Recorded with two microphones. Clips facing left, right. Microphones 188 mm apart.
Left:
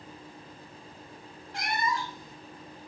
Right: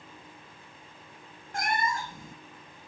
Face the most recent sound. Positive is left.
turn(degrees=-50)  # may be behind; listen again after turning